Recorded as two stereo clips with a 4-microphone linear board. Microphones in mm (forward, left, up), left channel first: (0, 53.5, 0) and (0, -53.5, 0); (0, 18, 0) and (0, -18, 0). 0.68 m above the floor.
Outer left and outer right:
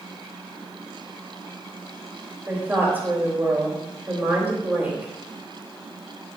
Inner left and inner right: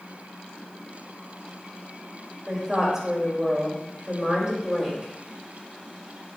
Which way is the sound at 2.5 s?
20° right (ahead or behind).